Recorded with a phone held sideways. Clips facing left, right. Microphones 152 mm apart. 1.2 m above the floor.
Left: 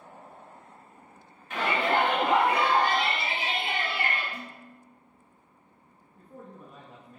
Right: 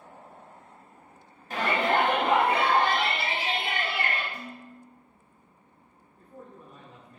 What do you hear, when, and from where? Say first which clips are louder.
1.5 s a shout: right 1 dB; 35° right (ahead or behind), 1.6 m; by 4.2 s 65° right (ahead or behind), 2.5 m
4.3 s dishes clattering: right 2 dB; 65° left (ahead or behind), 1.2 m
6.2 s a man speaking: left 1 dB; 80° left, 1.5 m